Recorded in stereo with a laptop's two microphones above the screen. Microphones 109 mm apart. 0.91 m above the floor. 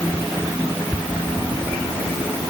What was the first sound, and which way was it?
Only background noise.